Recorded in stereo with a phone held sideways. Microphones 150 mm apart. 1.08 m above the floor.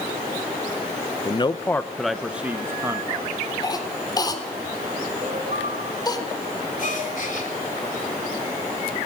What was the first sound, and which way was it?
A man speaking, 40° left (ahead or behind).